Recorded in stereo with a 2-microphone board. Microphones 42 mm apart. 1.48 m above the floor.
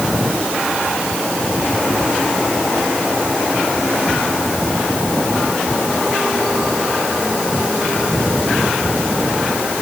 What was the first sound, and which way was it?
Only background noise.